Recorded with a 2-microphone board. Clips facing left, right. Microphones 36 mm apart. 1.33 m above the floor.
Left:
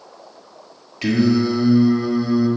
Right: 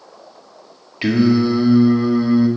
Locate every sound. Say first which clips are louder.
1.0 s singing: right 2 dB; 25° right (ahead or behind), 1.7 m